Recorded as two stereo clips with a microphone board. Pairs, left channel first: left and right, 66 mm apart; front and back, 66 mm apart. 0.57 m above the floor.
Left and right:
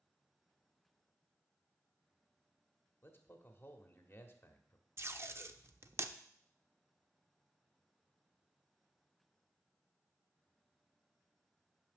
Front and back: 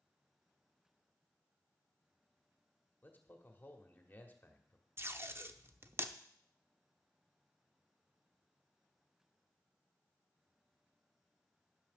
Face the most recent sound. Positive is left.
turn(degrees=-130)